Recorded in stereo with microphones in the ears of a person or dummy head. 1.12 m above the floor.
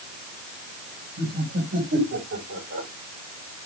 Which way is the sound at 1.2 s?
70° right (ahead or behind).